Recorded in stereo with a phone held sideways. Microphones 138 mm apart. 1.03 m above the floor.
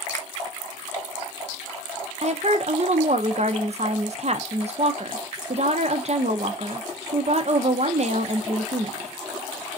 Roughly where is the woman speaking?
Right.